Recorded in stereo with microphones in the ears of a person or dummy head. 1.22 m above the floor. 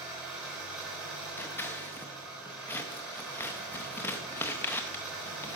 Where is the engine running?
5° right (ahead or behind), 2.5 m.